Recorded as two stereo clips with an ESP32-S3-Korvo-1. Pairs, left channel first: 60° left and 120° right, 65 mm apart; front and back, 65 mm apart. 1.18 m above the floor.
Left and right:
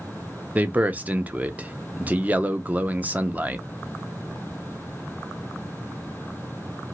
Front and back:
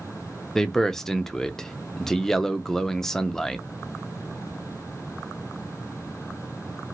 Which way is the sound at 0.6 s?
80° right.